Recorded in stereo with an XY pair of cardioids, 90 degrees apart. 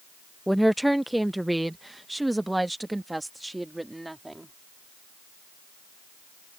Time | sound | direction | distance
0.5 | a woman speaking | 5° right | ?